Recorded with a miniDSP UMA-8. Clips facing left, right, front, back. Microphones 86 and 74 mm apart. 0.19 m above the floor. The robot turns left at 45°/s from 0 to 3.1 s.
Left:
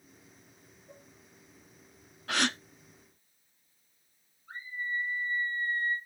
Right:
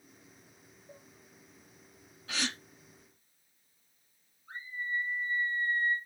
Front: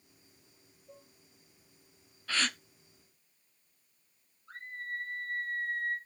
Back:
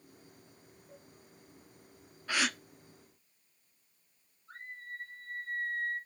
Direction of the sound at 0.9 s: 50° left.